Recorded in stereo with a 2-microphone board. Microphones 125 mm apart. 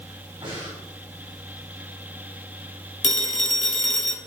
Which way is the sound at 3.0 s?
70° left (ahead or behind).